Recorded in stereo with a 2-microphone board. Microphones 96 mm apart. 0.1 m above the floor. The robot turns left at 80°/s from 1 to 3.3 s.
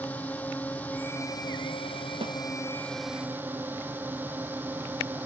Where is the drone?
160° left; by 5.3 s 20° right.